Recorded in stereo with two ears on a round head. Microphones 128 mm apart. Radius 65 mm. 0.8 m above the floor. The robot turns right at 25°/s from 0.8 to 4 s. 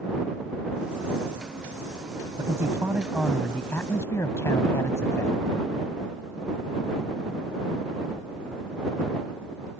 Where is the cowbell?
I don't hear a cowbell.